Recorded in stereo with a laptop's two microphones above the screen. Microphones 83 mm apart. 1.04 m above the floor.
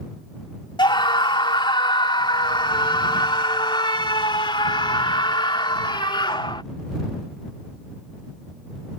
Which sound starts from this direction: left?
A scream, at 0.8 s.